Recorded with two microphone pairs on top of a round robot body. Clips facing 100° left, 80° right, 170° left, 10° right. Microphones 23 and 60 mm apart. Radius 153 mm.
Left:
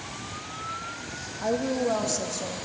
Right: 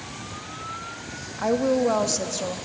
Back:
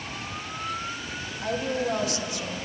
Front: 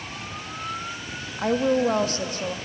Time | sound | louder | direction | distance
1.4 | a woman speaking | right 5 dB, front 7 dB | 40° right | 1.5 m